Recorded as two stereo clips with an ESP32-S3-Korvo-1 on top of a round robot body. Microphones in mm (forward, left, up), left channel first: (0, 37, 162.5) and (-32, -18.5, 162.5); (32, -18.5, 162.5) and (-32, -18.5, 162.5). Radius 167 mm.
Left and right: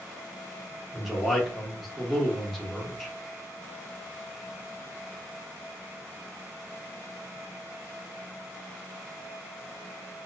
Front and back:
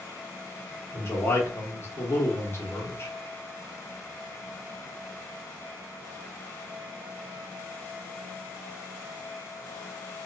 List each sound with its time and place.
0.9 s a man speaking: 30° right, 1.1 m